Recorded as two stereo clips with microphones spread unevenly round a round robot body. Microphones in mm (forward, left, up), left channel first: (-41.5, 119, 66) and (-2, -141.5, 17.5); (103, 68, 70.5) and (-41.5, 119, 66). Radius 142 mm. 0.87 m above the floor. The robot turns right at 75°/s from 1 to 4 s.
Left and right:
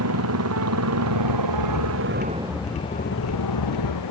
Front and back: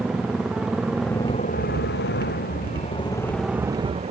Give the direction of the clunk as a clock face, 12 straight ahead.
I don't hear a clunk.